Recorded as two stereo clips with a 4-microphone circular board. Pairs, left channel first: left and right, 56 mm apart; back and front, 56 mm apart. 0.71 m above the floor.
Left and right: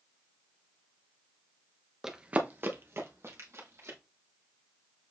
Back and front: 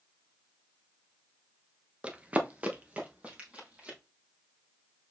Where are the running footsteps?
20° right, 0.7 m; by 4.0 s 65° right, 2 m.